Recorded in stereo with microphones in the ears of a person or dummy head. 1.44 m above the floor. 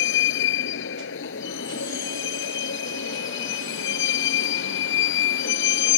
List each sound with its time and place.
0.0 s a vehicle: 70° left (ahead or behind)